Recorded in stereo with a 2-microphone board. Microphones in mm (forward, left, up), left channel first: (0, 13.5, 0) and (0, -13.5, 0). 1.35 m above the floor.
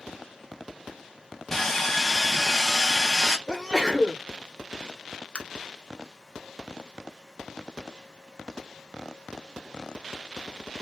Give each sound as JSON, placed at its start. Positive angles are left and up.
{"t": 1.5, "sound": "sawing", "side_deg": 10, "distance_m": 0.5}
{"t": 3.5, "sound": "a sneeze", "side_deg": -20, "distance_m": 1.1}
{"t": 5.3, "sound": "tapping", "side_deg": 45, "distance_m": 0.6}